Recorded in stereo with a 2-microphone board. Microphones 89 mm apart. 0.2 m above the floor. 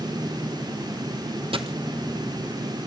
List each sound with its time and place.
1.5 s a dropped coin: 85° right, 1.0 m